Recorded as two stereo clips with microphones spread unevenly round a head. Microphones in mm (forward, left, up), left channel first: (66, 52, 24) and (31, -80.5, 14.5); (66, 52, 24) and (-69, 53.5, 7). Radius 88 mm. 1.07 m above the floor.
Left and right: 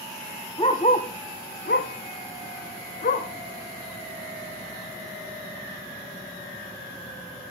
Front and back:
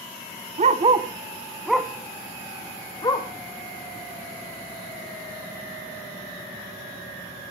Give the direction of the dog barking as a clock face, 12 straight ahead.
7 o'clock.